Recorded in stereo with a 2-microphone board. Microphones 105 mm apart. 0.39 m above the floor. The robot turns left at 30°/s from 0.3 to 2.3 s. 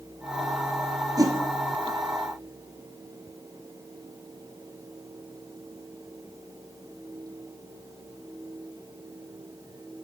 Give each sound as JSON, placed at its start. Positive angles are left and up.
{"t": 1.2, "sound": "a whoosh", "side_deg": -40, "distance_m": 1.8}